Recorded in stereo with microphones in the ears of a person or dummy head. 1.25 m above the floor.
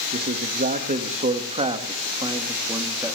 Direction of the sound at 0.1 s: 45° right (ahead or behind).